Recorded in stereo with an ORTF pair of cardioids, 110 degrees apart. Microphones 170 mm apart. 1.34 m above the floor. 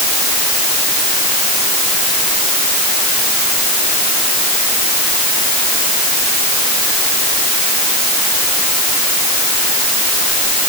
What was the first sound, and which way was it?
Only background noise.